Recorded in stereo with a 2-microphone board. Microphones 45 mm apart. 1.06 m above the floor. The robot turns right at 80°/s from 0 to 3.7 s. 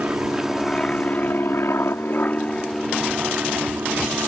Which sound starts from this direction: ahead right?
An aircraft, at 0.0 s.